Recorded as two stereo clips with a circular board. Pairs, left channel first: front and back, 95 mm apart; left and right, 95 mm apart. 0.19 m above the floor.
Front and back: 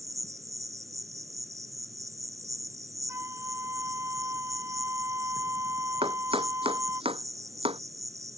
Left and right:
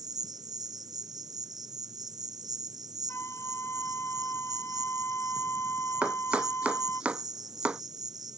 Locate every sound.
0.0 s an insect: 130° right
3.1 s a flute: 135° left
6.0 s chopping: 170° right